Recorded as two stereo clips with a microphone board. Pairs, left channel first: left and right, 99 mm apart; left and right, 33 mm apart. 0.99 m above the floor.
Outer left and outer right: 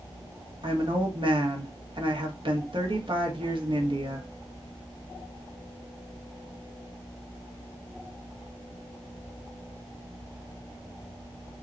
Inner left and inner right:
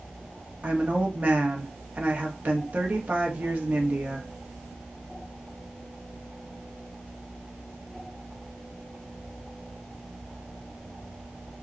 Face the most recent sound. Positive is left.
turn(degrees=-60)  # may be behind; listen again after turning